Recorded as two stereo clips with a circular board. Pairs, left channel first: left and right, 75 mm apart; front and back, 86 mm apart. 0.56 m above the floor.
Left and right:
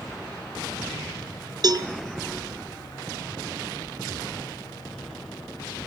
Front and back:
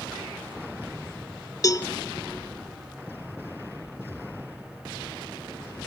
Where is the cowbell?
50° right, 0.7 m.